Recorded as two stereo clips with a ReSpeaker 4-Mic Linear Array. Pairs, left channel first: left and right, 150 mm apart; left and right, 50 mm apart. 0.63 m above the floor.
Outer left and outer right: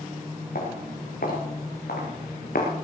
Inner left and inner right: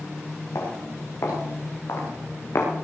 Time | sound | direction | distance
0.6 | footsteps | 75° left (ahead or behind) | 6 m